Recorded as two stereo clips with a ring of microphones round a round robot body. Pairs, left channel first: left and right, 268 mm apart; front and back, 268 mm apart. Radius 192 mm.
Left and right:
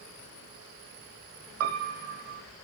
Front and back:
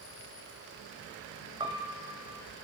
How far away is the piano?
About 1.0 m.